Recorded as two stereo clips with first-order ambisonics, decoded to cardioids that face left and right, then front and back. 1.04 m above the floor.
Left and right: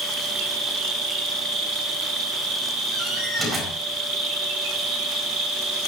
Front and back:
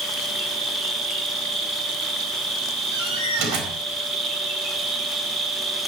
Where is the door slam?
170° right, 4.5 m.